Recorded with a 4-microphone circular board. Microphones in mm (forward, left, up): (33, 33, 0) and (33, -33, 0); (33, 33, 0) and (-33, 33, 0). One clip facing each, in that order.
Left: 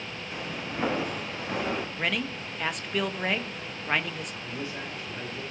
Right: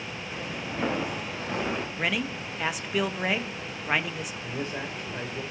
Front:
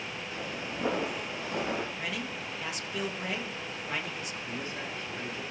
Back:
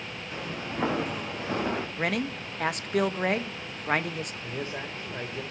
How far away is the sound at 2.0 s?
About 0.8 m.